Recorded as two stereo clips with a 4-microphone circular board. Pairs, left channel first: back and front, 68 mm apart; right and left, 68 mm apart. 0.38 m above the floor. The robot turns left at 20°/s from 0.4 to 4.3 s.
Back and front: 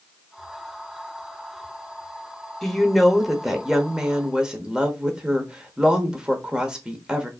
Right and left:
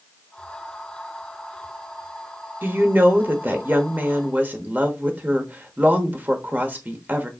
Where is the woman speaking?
100° left, 0.9 m; by 7.3 s 65° left, 0.9 m.